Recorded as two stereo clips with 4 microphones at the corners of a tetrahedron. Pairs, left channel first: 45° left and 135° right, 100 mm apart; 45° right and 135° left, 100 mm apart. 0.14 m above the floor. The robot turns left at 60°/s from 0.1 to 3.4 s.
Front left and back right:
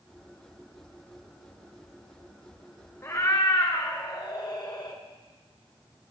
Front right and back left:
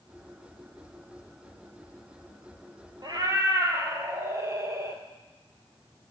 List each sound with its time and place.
3.0 s a cat meowing: 105° left, 1.2 m; by 5.0 s 80° left, 1.2 m